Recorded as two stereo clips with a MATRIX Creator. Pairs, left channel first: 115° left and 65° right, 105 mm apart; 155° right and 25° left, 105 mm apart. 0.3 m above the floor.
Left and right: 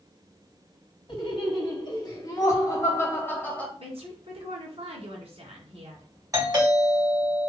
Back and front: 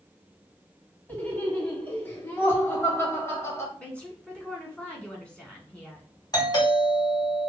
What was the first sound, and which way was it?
Laughter, 130° left.